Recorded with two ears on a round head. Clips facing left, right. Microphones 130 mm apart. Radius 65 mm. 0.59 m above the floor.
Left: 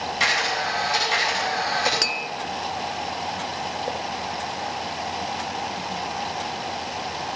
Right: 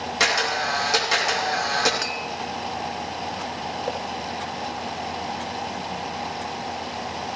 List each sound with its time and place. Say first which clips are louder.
0.2 s a camera shutter: right 3 dB; 70° right (ahead or behind), 6.5 m
2.0 s tapping: even; 40° left (ahead or behind), 0.7 m